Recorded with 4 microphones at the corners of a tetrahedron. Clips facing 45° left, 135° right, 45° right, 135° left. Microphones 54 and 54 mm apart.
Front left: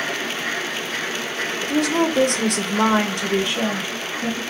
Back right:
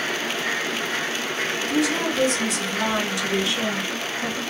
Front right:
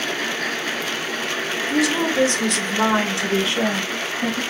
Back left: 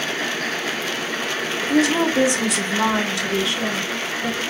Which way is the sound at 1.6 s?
90° left.